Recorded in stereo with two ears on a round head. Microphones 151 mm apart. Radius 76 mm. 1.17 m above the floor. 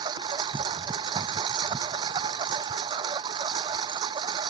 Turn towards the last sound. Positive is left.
turn(degrees=-25)  # may be behind; listen again after turning